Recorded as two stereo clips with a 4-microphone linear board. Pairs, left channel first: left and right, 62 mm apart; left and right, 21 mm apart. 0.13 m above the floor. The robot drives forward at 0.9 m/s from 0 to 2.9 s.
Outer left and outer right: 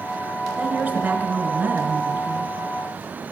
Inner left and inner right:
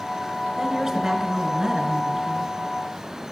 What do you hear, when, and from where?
0.6 s a woman speaking: 25° right (ahead or behind), 1.9 m; by 2.5 s 30° right (ahead or behind), 1.8 m